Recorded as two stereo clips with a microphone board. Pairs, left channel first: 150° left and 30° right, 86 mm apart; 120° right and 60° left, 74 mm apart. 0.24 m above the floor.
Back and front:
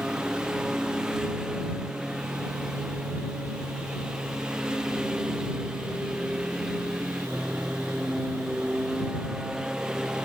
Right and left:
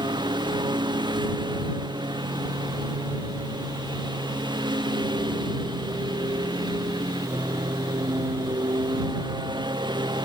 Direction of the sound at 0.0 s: 50° left.